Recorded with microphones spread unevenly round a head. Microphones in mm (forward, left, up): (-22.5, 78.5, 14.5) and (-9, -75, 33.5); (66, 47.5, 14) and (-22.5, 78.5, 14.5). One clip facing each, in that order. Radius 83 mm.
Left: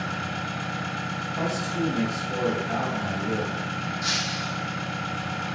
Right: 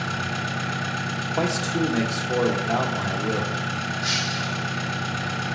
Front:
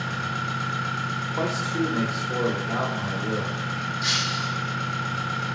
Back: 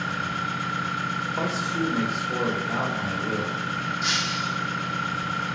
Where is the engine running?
110° right, 0.9 m.